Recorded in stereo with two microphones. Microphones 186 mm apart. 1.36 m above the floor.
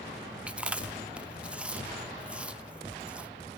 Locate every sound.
0.5 s chewing: 5° right (ahead or behind), 0.6 m